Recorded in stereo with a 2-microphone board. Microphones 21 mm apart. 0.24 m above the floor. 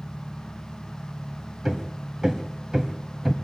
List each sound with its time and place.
0.0 s an engine running: 40° right (ahead or behind), 4 m
1.6 s hammering: 30° right (ahead or behind), 1.4 m